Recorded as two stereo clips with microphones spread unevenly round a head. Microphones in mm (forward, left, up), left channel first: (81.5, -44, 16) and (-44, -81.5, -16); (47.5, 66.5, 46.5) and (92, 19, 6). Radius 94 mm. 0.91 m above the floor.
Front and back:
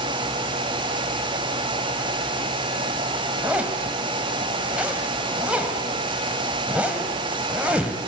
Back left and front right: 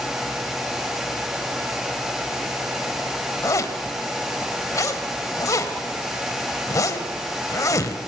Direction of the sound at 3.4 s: 110° left.